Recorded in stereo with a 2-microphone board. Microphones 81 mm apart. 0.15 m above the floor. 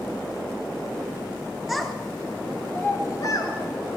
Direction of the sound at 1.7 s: Centre (ahead or behind).